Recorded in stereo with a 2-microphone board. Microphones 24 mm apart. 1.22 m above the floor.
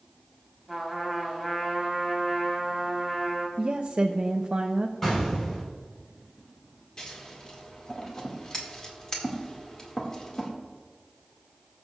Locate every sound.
0.7 s a trumpet: 10° left (ahead or behind), 3.5 m
3.6 s a woman speaking: 55° right (ahead or behind), 0.6 m
5.0 s an explosion: 20° left (ahead or behind), 4.5 m
7.0 s scissors: 30° left (ahead or behind), 2 m